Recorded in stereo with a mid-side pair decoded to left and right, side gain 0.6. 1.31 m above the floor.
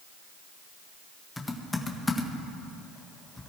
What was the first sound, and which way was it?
Typing on a keyboard, 15° left.